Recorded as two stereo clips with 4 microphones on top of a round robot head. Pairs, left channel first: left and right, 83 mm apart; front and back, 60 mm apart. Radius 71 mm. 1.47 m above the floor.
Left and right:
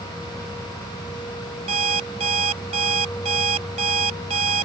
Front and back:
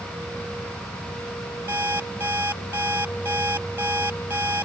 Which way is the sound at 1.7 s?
105° right.